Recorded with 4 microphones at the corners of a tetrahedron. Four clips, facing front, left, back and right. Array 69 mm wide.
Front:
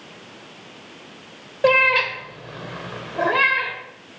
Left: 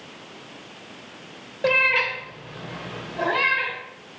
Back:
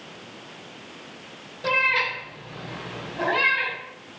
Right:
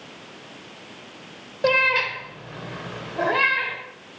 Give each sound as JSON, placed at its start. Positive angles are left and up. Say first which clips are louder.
{"t": 1.6, "sound": "a cat meowing", "louder": "even, front 6 dB", "azimuth_deg": -20, "distance_m": 1.6}